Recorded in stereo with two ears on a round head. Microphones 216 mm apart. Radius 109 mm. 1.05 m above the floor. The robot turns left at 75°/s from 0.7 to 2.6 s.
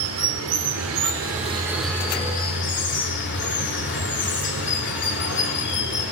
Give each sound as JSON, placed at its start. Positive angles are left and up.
{"t": 0.0, "sound": "running water", "azimuth_deg": -95, "distance_m": 2.5}